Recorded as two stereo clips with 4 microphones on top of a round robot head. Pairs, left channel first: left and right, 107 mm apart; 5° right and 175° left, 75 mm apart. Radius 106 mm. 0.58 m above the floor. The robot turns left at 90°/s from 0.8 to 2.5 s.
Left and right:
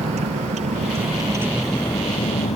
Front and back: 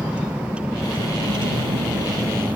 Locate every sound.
0.0 s a vehicle: 110° right; by 2.6 s 105° left